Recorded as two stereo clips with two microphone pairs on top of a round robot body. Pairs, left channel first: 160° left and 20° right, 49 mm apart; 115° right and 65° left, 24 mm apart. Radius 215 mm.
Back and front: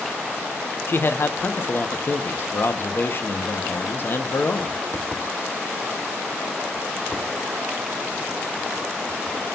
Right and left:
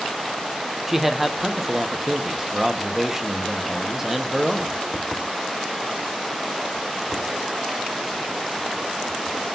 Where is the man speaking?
140° left, 1.4 m.